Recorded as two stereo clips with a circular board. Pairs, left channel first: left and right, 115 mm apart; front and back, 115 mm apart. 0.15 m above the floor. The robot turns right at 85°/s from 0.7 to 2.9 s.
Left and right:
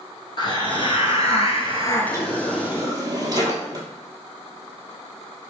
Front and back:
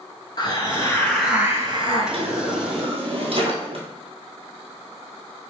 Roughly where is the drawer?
Behind left.